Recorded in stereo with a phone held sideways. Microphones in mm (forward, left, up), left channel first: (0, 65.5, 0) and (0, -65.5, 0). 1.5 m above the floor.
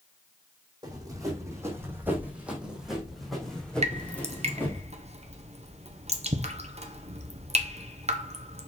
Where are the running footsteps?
30° right (ahead or behind), 3 m; by 4.8 s 15° left (ahead or behind), 3.5 m.